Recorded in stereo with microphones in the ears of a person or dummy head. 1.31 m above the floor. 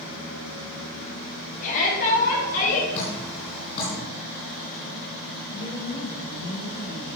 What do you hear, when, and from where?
1.6 s a shout: 40° left (ahead or behind), 4.5 m; by 2.8 s 45° left (ahead or behind), 5.5 m
2.9 s dripping: 30° left (ahead or behind), 4 m
5.5 s a woman speaking: 35° right (ahead or behind), 4.5 m